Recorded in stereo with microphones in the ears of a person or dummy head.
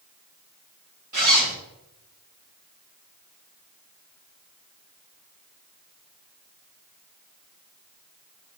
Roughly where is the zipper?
Right.